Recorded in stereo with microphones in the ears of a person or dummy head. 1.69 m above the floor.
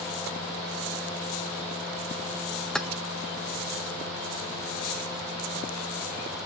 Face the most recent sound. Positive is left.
turn(degrees=0)  # may be behind; listen again after turning